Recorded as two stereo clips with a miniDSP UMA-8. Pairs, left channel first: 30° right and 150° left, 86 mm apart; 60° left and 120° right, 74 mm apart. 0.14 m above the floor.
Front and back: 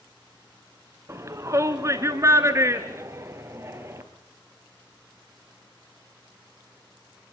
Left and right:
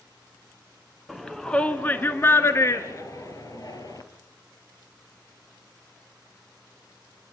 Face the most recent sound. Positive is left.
turn(degrees=90)